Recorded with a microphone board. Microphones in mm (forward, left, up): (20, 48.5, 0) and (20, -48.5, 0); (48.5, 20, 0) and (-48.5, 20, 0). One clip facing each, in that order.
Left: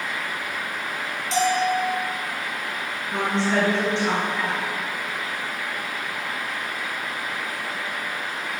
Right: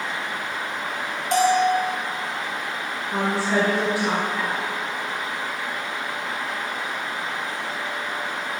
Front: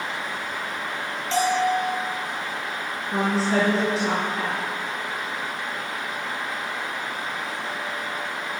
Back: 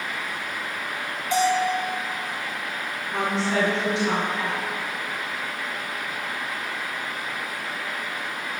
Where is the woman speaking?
15° right, 1.4 m.